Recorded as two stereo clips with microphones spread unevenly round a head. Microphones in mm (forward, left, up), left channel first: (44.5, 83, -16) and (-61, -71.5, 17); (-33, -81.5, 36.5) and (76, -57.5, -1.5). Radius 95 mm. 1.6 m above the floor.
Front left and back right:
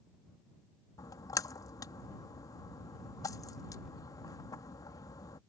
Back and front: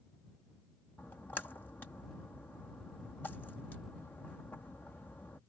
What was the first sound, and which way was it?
A splash, 130° left.